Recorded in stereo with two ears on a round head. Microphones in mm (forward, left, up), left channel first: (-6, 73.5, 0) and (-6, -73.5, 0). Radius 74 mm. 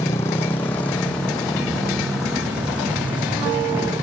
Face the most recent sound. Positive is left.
turn(degrees=-15)  # may be behind; listen again after turning